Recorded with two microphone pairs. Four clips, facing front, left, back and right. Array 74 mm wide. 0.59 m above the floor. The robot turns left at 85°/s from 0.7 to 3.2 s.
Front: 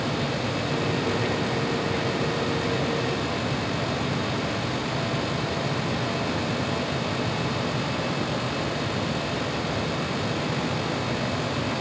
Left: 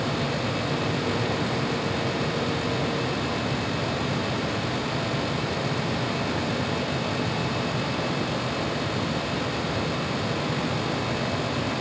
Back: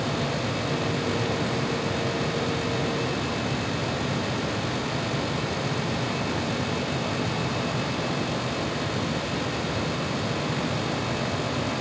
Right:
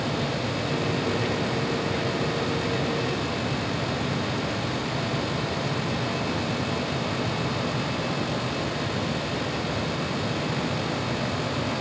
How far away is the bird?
No bird in this recording.